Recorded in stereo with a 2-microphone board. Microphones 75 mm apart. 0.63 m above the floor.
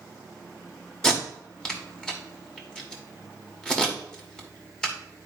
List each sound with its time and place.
1.0 s tape being pulled: 10° left (ahead or behind), 1.5 m